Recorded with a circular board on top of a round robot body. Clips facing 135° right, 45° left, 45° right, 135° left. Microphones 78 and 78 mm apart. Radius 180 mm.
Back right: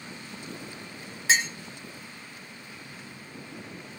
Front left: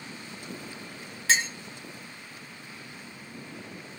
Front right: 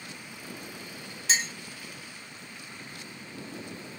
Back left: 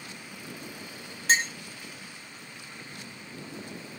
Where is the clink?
155° left, 1.1 m.